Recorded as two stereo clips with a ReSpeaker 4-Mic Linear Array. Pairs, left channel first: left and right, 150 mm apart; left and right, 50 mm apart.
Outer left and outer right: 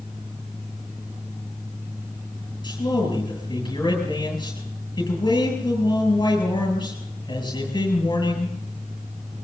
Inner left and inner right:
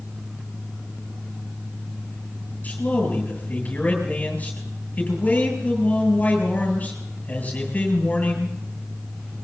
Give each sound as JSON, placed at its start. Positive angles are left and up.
{"t": 2.6, "sound": "a man speaking", "side_deg": 30, "distance_m": 8.0}